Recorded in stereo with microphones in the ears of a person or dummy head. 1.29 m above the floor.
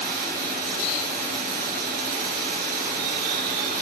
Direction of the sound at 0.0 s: 55° right (ahead or behind).